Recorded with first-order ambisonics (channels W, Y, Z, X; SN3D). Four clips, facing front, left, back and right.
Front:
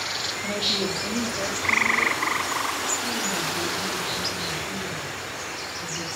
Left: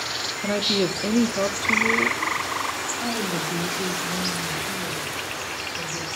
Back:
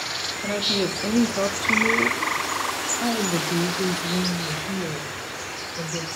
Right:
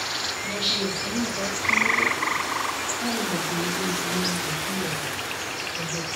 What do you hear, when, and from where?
0.4 s a woman speaking: 105° left, 1.1 m; by 6.1 s 160° right, 3 m